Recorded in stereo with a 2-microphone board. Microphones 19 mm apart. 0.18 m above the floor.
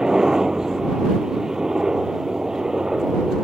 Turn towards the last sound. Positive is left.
turn(degrees=-35)  # may be behind; listen again after turning